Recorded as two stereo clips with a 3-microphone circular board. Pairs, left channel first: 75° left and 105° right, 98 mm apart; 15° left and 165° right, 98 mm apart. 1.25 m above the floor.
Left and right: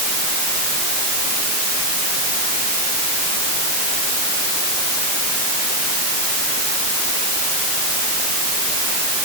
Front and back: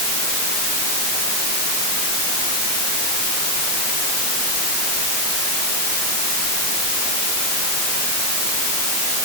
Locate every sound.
Only background noise.